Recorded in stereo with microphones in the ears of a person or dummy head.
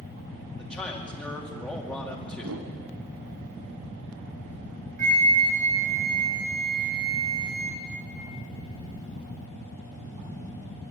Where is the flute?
45° right (ahead or behind), 4 m.